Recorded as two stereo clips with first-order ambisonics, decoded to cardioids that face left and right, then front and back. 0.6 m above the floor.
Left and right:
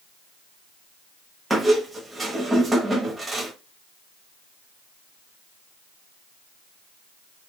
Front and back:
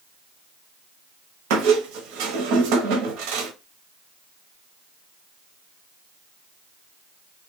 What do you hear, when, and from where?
1.5 s a squeak: 170° right, 0.8 m